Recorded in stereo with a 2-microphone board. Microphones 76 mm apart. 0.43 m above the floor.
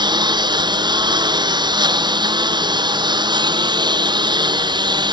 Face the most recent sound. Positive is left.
turn(degrees=-75)  # may be behind; listen again after turning